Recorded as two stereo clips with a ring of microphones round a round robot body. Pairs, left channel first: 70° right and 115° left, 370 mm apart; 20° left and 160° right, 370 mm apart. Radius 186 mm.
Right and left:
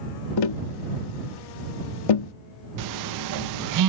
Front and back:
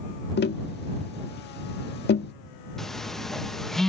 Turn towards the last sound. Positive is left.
turn(degrees=110)